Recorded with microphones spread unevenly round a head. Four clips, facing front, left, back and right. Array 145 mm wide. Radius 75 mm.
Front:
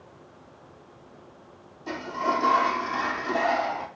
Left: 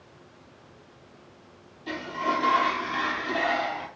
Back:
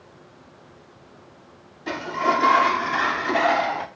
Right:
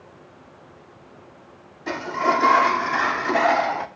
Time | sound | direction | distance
1.9 | a sliding door | 115° right | 0.8 m